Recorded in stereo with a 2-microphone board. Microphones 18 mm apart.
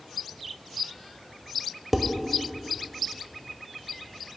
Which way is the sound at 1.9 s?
15° right (ahead or behind).